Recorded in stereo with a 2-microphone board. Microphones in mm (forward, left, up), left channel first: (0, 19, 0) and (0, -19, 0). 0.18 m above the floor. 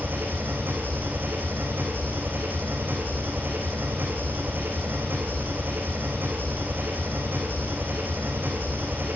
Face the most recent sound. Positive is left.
turn(degrees=-65)  # may be behind; listen again after turning